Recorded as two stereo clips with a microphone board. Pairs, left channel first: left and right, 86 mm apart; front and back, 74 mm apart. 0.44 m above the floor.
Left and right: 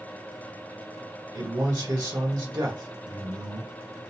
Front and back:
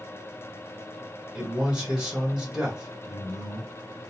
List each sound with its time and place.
1.4 s a man speaking: 105° right, 1.2 m